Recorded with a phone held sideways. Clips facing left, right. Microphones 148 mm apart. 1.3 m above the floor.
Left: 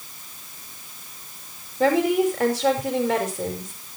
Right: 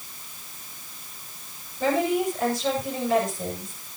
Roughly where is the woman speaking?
Left.